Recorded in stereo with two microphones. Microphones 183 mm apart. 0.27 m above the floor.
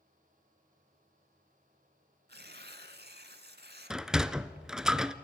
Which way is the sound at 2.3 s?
65° right (ahead or behind).